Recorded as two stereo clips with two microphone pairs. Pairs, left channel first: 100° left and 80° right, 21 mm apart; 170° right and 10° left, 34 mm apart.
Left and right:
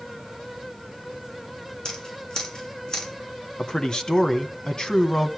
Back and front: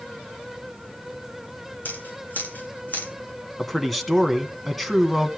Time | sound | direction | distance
1.9 | scissors | 155° left | 7.5 m
3.6 | a man speaking | 100° left | 1.8 m